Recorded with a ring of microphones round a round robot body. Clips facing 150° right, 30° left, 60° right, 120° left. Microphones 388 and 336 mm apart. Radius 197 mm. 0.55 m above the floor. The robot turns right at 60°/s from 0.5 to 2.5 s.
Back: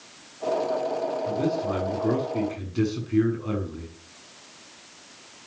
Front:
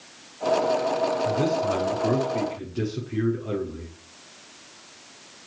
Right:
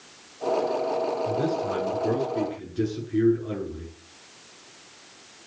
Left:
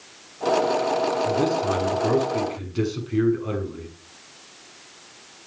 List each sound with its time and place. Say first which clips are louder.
1.2 s a man speaking: back 1 dB, left 4 dB; 70° left, 7 m; by 3.9 s 145° left, 7 m